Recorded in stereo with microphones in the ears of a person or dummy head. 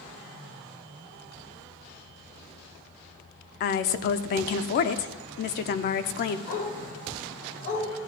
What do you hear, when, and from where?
3.6 s a woman speaking: 45° left (ahead or behind), 0.6 m
6.5 s a dog barking: 50° left (ahead or behind), 4.5 m